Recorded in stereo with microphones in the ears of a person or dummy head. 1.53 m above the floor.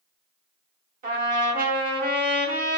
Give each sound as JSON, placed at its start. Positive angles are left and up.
{"t": 1.0, "sound": "a trumpet", "side_deg": -45, "distance_m": 0.8}